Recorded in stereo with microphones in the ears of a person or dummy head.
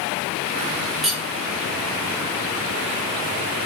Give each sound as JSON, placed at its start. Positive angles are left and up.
{"t": 1.0, "sound": "cutlery clinking", "side_deg": 0, "distance_m": 3.0}